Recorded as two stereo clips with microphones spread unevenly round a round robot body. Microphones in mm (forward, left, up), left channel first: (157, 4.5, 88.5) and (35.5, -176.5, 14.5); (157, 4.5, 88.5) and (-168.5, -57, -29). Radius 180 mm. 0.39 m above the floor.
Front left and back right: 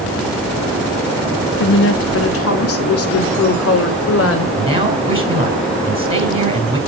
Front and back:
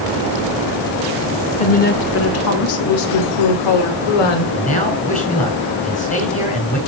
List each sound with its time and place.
1.6 s a woman speaking: 100° left, 1.2 m; by 4.5 s 25° left, 2 m
4.5 s a man speaking: 65° right, 4 m